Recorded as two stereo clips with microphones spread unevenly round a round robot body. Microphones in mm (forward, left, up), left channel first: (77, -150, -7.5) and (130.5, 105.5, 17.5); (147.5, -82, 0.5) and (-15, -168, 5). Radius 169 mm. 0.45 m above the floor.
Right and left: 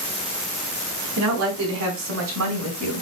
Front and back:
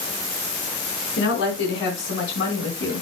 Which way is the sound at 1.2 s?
70° left.